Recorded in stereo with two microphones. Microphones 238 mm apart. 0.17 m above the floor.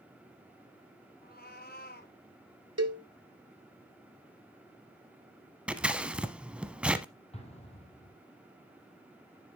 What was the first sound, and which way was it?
A cat meowing, 40° left (ahead or behind).